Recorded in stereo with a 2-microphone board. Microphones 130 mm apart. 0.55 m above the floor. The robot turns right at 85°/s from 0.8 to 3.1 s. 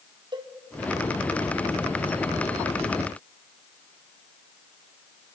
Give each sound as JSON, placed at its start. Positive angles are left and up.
{"t": 0.3, "sound": "a cowbell", "side_deg": -35, "distance_m": 1.5}